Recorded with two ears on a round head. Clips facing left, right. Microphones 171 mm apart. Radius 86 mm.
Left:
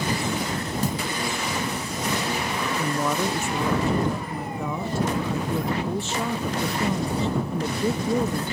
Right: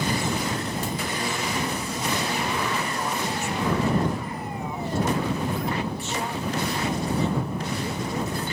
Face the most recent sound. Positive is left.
turn(degrees=65)  # may be behind; listen again after turning